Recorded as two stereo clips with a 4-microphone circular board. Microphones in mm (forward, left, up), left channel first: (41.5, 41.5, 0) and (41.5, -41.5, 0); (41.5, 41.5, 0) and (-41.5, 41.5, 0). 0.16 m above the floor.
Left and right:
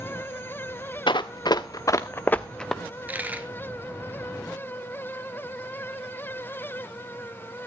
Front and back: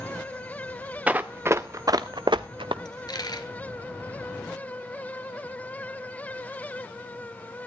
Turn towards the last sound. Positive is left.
turn(degrees=-20)